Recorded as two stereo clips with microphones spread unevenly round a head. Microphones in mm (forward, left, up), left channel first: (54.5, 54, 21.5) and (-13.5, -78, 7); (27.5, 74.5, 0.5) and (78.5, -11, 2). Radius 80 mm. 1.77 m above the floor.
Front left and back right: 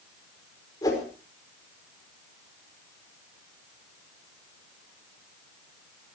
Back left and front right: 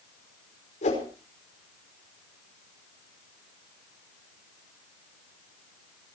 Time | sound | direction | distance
0.8 | a whoosh | 130° left | 5 m